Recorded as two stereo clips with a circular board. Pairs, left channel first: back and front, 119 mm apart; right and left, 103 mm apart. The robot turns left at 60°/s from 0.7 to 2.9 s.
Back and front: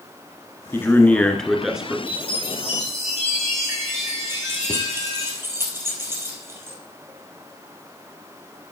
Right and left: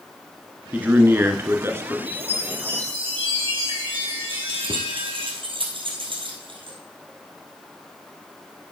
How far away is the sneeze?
No sneeze in this recording.